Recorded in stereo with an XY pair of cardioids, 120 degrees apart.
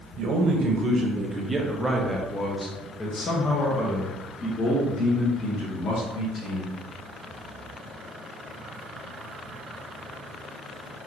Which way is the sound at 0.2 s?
55° right.